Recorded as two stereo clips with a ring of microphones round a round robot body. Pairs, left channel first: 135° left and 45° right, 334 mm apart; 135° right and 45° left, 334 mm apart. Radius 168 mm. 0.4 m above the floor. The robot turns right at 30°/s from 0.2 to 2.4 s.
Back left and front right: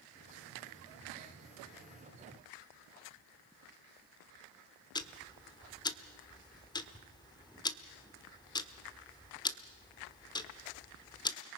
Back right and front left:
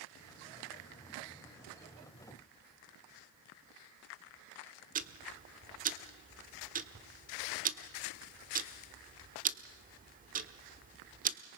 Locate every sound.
5.0 s ticking: 75° left, 1.2 m